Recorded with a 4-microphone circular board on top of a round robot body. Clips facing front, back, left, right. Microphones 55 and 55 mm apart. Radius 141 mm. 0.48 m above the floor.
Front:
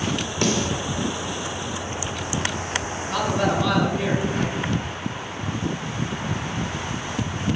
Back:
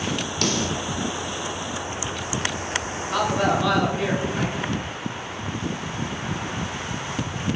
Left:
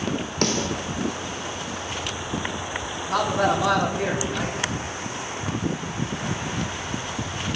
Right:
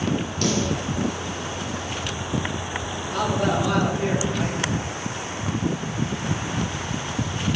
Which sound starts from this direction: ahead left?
A snare drum, at 0.4 s.